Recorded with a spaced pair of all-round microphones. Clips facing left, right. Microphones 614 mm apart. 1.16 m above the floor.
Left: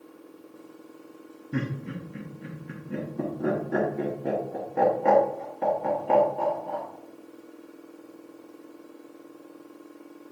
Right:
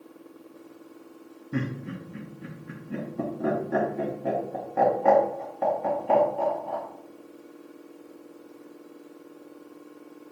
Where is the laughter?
5° right (ahead or behind), 0.7 m.